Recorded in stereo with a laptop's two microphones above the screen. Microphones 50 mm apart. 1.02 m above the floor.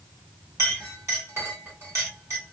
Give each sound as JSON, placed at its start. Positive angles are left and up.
{"t": 0.6, "sound": "a clink", "side_deg": -75, "distance_m": 1.4}